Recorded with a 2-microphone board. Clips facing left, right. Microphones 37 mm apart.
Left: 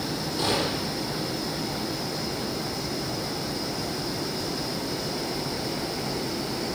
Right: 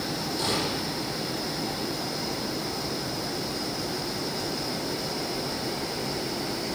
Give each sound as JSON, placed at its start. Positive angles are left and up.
{"t": 0.4, "sound": "a gunshot", "side_deg": 25, "distance_m": 7.0}